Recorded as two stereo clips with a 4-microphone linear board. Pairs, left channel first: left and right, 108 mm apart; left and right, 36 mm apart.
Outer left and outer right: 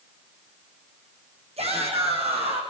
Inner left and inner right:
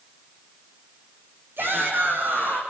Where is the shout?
70° right (ahead or behind), 7 m; by 2.6 s 65° right (ahead or behind), 7.5 m.